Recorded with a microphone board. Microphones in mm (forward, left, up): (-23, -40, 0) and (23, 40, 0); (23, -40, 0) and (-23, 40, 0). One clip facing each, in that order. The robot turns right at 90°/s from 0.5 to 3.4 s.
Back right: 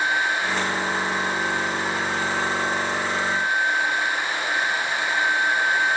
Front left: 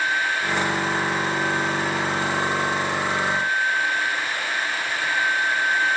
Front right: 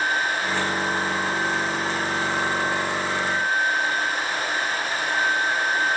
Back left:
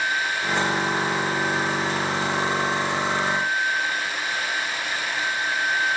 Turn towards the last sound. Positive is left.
No sound to turn to.